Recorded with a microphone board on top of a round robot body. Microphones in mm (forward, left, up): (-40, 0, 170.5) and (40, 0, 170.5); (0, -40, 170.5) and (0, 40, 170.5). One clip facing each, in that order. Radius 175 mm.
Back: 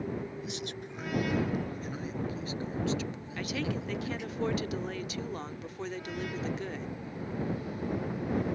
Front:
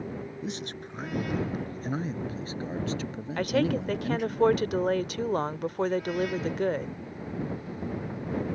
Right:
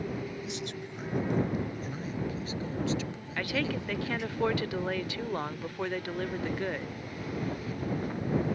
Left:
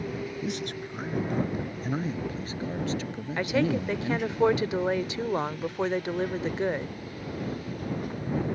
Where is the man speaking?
50° left; by 4.4 s 40° left.